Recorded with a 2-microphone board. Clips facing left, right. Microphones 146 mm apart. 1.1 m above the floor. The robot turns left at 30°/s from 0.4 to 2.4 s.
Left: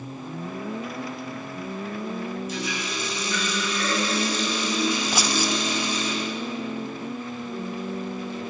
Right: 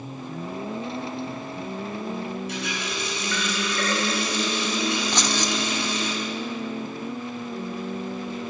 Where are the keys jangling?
10° left (ahead or behind), 0.8 m.